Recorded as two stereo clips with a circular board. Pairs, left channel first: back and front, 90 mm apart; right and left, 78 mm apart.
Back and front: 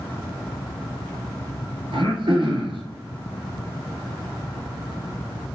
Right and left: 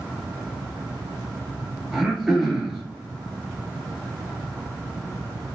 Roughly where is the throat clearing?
Ahead.